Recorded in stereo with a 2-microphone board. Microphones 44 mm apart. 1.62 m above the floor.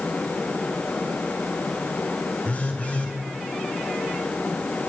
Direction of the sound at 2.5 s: 30° left (ahead or behind).